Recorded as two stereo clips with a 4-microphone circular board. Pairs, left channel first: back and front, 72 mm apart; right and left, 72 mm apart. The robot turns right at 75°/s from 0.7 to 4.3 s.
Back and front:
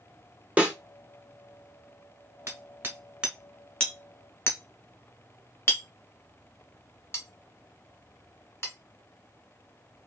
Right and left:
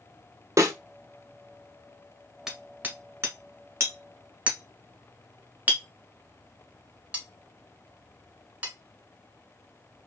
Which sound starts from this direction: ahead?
Hammering, at 2.5 s.